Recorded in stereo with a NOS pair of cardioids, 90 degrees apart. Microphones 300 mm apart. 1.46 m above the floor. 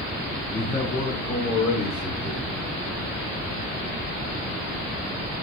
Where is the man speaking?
10° left, 0.9 m; by 2.6 s 50° left, 2 m.